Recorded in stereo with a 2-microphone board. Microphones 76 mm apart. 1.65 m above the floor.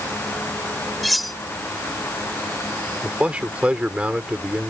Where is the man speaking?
15° right (ahead or behind).